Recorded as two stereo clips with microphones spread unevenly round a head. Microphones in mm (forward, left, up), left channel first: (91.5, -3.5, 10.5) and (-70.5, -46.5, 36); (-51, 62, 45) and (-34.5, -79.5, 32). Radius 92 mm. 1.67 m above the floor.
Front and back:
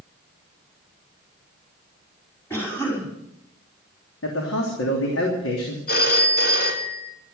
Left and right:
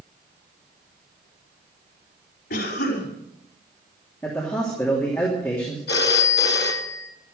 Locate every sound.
2.5 s a cough: 95° left, 5 m
4.2 s a man speaking: 20° left, 3 m
5.9 s a phone ringing: 60° left, 2 m